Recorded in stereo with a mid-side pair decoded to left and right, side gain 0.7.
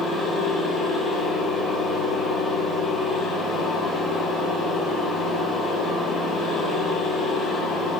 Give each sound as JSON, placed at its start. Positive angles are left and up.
{"t": 0.0, "sound": "a machine running", "azimuth_deg": 10, "distance_m": 2.5}